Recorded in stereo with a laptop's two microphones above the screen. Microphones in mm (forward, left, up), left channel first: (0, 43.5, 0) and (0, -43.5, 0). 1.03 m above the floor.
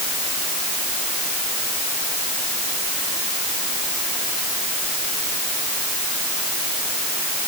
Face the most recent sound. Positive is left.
No sound to turn to.